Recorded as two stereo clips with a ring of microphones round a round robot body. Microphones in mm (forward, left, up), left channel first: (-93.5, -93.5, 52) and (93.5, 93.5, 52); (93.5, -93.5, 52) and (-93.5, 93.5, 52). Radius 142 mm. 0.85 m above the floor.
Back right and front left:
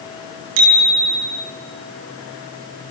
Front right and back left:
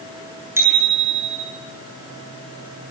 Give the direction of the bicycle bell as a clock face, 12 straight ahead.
10 o'clock.